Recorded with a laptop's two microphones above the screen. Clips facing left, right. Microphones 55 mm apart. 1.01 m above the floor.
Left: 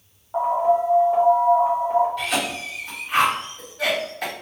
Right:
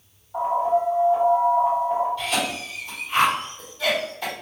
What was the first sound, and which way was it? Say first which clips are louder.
An alarm: left 2 dB; 60° left (ahead or behind).